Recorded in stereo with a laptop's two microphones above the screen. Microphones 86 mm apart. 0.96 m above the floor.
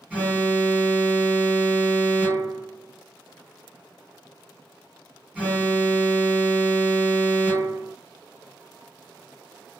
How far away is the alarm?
About 2.0 m.